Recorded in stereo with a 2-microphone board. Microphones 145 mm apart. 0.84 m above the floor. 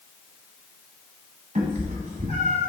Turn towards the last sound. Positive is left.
turn(degrees=-60)  # may be behind; listen again after turning